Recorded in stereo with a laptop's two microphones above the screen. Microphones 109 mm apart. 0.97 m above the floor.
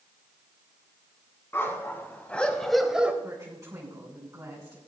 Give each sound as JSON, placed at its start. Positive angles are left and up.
{"t": 1.5, "sound": "a dog barking", "side_deg": 25, "distance_m": 2.5}
{"t": 3.2, "sound": "a woman speaking", "side_deg": -35, "distance_m": 8.0}